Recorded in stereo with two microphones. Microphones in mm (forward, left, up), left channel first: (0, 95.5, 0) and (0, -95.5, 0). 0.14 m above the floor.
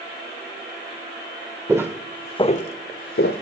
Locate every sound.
1.7 s footsteps: 15° right (ahead or behind), 0.7 m; by 3.4 s 85° left, 0.8 m